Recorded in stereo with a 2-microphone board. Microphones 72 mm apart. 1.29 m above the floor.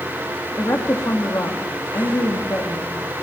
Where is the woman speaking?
50° left (ahead or behind), 3 m.